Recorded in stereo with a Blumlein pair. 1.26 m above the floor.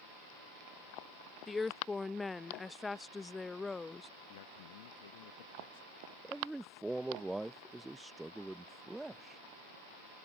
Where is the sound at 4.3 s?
55° left.